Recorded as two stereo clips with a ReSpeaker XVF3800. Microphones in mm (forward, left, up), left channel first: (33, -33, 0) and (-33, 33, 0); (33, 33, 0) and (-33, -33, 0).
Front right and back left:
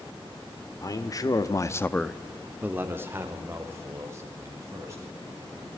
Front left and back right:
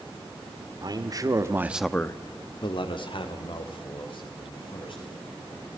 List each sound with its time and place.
0.8 s a man speaking: 95° right, 1.7 m; by 5.7 s 75° left, 5.5 m